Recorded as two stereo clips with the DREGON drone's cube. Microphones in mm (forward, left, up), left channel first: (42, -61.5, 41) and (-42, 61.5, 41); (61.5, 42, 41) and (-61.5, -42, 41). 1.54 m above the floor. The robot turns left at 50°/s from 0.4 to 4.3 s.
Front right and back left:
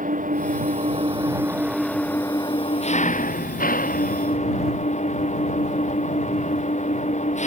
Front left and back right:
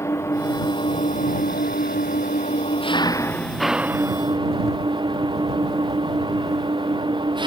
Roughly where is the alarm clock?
No alarm clock in this recording.